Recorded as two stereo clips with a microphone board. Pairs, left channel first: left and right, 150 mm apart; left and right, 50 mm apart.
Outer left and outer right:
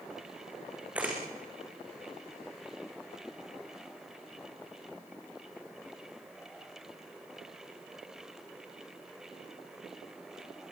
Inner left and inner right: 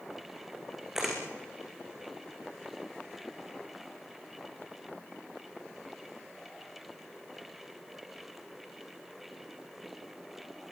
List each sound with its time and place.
0.9 s a camera shutter: 10° right (ahead or behind), 6.5 m